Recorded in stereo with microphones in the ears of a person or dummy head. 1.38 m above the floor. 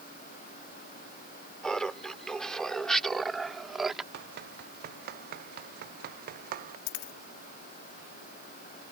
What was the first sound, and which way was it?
Laughter, 5° left (ahead or behind).